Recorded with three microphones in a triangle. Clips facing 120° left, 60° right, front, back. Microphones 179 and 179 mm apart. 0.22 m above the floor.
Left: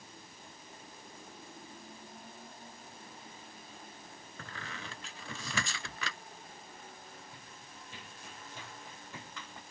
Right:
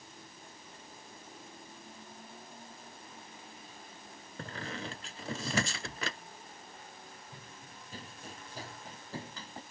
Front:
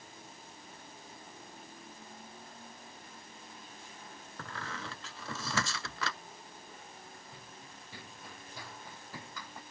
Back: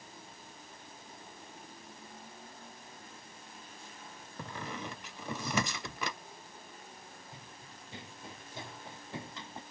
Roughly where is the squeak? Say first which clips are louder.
Right 7 dB, back 3 dB; right.